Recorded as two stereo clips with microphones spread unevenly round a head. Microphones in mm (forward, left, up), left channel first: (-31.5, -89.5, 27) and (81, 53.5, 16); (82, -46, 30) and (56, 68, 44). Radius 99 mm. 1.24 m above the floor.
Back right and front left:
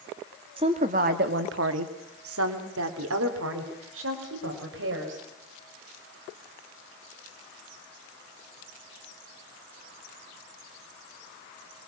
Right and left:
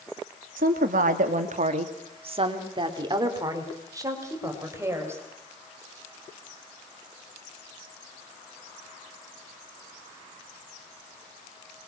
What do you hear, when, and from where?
0.6 s a woman speaking: 120° left, 2 m; by 5.2 s 35° left, 5.5 m